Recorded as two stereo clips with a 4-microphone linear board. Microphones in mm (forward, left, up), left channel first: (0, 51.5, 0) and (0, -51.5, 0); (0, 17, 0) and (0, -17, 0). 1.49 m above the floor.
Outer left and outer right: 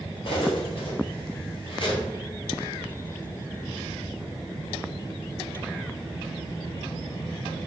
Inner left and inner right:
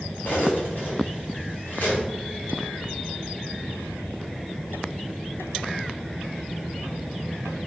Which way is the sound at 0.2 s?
55° left (ahead or behind).